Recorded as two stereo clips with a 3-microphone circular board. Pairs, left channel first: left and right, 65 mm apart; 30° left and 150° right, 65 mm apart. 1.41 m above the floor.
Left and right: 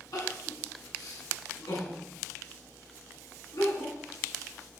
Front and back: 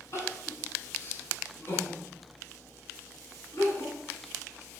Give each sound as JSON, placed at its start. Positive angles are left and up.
{"t": 0.1, "sound": "crying", "azimuth_deg": 75, "distance_m": 9.0}